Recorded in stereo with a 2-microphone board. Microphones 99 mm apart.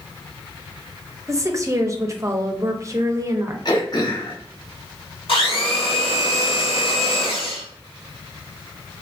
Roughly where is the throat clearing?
Left.